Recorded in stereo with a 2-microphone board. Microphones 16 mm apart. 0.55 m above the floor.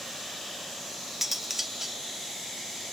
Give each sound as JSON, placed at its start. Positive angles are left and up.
{"t": 1.2, "sound": "cutlery clinking", "side_deg": -20, "distance_m": 0.5}